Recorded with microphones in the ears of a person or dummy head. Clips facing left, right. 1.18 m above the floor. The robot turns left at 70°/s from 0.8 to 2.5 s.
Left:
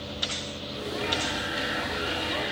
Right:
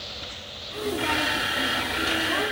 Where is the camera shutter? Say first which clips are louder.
Right 3 dB; 70° right, 1.9 m; by 2.5 s straight behind, 1.9 m.